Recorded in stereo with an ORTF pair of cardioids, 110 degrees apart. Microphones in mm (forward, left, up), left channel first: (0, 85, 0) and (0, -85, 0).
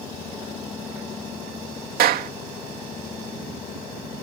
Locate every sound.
2.0 s a clap: 65° right